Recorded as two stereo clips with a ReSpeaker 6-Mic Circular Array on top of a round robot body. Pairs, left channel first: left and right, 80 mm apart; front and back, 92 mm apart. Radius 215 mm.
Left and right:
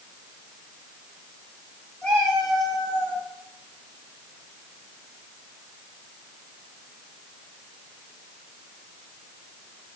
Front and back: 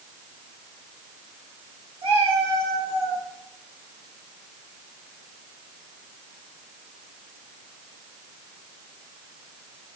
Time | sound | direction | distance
2.0 | a cat meowing | 165° left | 2.5 m